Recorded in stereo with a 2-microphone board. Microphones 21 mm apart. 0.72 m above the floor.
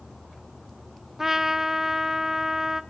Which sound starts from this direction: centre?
A trumpet, at 1.2 s.